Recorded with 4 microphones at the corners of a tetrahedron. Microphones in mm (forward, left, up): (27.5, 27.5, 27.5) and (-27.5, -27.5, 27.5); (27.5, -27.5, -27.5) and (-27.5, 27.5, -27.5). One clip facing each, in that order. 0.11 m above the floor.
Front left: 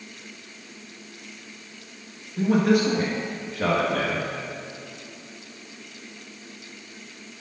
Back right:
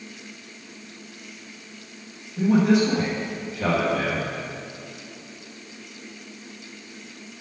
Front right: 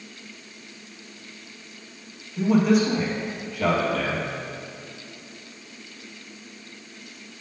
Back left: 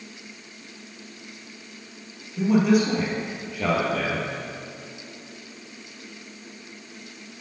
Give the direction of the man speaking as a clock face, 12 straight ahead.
10 o'clock.